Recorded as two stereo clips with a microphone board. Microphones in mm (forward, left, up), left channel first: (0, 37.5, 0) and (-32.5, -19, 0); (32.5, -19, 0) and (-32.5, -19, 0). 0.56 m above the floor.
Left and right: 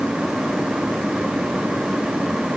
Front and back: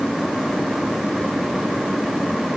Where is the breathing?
I don't hear breathing.